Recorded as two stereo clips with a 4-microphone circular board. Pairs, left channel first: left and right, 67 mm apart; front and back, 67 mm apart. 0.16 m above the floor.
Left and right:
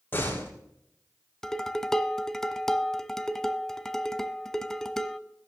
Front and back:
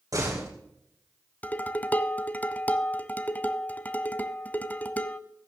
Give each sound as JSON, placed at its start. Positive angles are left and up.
{"t": 0.1, "sound": "a door slam", "azimuth_deg": 150, "distance_m": 7.0}
{"t": 1.4, "sound": "dishes clattering", "azimuth_deg": 15, "distance_m": 0.7}